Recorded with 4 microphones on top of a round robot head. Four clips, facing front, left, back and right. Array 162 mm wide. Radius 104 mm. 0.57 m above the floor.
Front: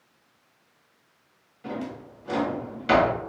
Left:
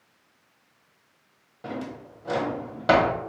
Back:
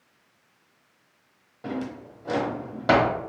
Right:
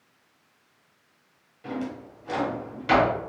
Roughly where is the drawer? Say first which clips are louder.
Right 2 dB, back 2 dB; behind left.